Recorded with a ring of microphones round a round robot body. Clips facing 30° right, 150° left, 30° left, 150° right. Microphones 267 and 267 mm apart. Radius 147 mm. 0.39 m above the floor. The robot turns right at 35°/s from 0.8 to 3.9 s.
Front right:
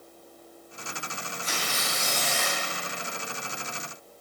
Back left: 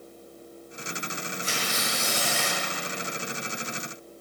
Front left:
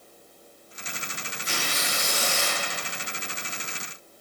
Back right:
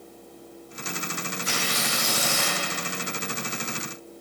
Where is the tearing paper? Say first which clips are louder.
Back left 1 dB, back right 1 dB; 155° right, 2.5 m; by 2.6 s 110° right, 2.5 m.